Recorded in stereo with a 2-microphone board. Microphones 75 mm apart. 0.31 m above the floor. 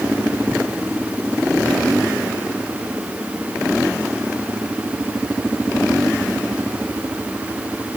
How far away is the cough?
I don't hear a cough.